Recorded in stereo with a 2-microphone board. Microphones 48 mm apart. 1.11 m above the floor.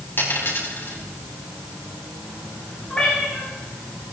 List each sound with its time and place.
0.2 s a dropped coin: 45° left (ahead or behind), 4.5 m
2.9 s a cat meowing: 15° left (ahead or behind), 7.5 m